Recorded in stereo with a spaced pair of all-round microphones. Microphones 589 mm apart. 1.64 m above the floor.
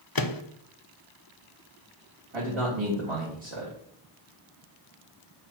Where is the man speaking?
55° right (ahead or behind), 3 m.